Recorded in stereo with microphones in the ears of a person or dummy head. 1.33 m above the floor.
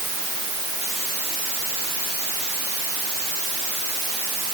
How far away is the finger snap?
No finger snap in this recording.